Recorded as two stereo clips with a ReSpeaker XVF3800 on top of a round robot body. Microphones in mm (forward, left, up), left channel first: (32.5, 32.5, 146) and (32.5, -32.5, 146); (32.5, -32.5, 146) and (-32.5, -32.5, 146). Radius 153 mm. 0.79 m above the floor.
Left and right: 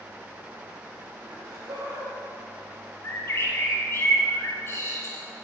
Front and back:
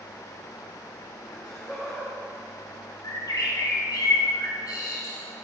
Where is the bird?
35° left, 1.6 m.